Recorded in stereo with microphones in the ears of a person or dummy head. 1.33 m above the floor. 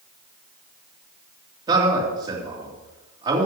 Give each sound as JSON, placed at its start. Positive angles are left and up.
{"t": 1.7, "sound": "a man speaking", "side_deg": -25, "distance_m": 3.5}